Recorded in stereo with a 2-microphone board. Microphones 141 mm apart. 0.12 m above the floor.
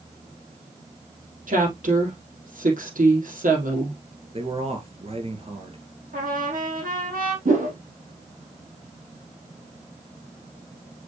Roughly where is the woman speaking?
Right.